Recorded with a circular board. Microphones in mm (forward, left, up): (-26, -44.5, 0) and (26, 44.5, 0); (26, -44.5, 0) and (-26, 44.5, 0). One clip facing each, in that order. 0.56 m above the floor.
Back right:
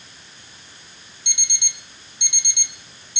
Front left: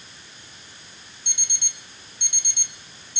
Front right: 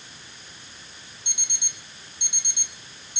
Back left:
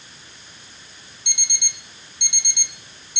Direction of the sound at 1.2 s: 105° left.